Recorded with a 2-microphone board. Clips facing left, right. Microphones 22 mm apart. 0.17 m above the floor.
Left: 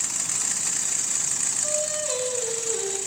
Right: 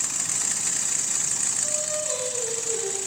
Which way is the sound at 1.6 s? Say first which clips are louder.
Left 1 dB; 15° left (ahead or behind).